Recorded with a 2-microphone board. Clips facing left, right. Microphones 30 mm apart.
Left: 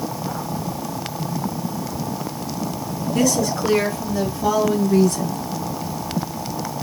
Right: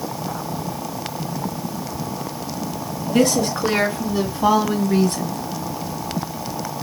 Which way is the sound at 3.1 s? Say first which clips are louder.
Right 2 dB; 60° right (ahead or behind).